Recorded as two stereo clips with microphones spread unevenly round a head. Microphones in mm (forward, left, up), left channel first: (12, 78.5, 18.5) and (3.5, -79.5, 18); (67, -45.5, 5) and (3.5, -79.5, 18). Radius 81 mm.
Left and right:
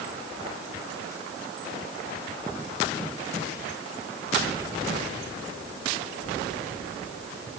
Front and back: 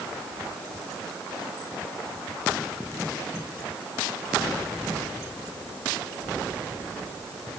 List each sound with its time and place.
Only background noise.